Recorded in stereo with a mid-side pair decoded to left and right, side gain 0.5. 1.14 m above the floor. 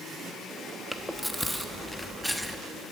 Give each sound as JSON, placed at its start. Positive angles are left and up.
{"t": 0.9, "sound": "chewing", "azimuth_deg": 0, "distance_m": 1.1}